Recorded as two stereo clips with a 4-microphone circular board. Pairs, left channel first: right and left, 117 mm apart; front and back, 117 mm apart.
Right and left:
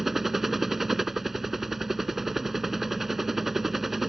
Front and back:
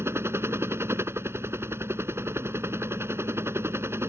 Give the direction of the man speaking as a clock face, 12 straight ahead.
No man speaking in this recording.